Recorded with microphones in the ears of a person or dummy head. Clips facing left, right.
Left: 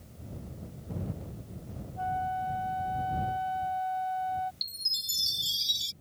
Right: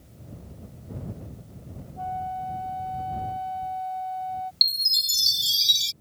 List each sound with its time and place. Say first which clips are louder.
2.0 s a flute: right 1 dB; 15° left (ahead or behind)
4.6 s a chime: right 8 dB; 25° right (ahead or behind)